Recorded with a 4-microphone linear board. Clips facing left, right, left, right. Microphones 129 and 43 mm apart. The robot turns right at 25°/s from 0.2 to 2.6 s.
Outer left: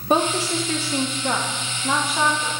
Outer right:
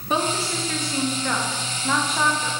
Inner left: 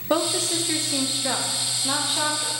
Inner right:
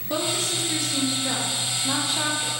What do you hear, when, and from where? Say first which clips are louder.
0.1 s a woman speaking: outer left 4 dB, inner left 3 dB; 120° left, 0.6 m; by 2.5 s straight behind, 0.6 m